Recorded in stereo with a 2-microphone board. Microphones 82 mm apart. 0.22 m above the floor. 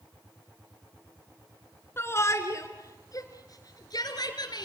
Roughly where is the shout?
Left.